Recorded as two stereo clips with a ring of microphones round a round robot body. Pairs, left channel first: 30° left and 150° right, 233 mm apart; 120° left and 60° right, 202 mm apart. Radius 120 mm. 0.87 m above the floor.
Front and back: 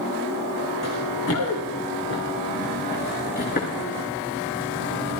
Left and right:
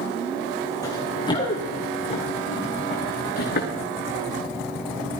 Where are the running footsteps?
45° left, 4 m; by 3.7 s 85° left, 4.5 m.